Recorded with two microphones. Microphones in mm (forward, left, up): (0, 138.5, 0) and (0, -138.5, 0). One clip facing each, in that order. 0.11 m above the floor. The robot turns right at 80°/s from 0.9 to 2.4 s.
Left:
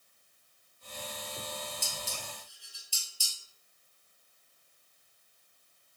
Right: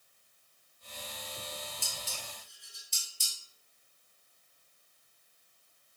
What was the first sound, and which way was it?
Dishes clattering, 15° left (ahead or behind).